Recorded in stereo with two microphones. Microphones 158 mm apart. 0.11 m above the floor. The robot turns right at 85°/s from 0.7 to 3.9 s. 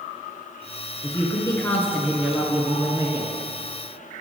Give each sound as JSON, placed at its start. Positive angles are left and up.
{"t": 1.0, "sound": "a woman speaking", "side_deg": 20, "distance_m": 1.1}